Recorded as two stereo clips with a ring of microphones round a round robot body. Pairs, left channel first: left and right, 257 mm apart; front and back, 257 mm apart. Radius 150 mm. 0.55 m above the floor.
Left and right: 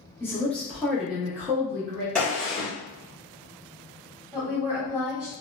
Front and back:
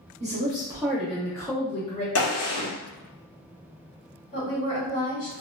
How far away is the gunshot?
About 0.9 m.